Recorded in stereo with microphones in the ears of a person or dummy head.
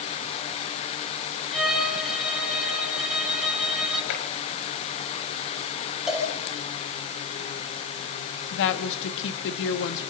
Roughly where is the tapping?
Left.